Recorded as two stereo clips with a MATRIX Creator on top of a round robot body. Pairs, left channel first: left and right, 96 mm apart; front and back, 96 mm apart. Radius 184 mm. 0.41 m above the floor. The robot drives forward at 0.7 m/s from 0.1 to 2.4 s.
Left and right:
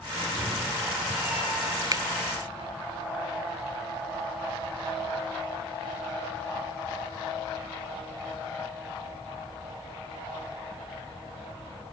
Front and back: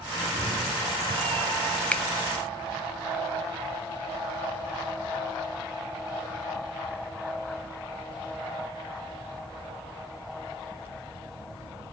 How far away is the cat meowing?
About 2.5 m.